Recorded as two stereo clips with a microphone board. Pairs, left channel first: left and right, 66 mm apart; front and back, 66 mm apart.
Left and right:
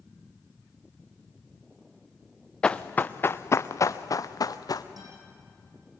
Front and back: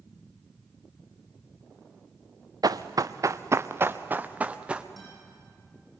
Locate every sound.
2.6 s running footsteps: 165° left, 0.9 m; by 4.9 s 105° left, 1.4 m
5.0 s a guitar: 90° right, 9.5 m